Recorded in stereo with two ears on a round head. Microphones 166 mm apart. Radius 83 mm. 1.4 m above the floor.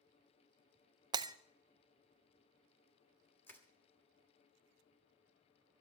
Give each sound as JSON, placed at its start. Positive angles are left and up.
{"t": 1.1, "sound": "breaking glass", "side_deg": -20, "distance_m": 0.6}
{"t": 3.5, "sound": "crushing", "side_deg": 10, "distance_m": 1.6}